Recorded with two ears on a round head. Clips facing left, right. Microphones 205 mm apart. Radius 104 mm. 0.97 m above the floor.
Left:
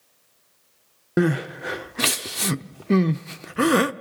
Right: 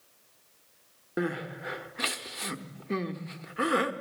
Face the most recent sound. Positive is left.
turn(degrees=60)  # may be behind; listen again after turning